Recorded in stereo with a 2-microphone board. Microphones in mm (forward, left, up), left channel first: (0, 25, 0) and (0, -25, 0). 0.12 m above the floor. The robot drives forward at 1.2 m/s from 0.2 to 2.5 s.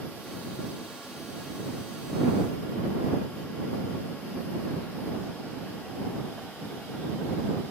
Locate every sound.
Only background noise.